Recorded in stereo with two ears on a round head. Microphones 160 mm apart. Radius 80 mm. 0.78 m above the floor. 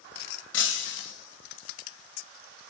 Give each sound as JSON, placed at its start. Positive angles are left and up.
{"t": 0.5, "sound": "breaking glass", "side_deg": 70, "distance_m": 2.5}